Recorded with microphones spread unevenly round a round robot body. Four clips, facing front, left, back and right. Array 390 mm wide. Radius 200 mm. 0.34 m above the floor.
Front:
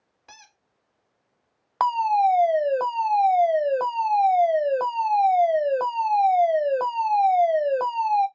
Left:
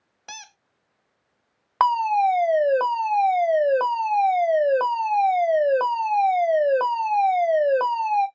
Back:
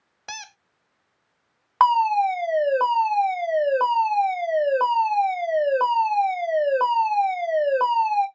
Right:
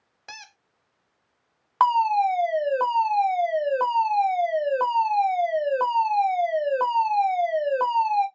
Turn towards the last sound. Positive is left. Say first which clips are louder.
# even, back 2 dB
turn(degrees=25)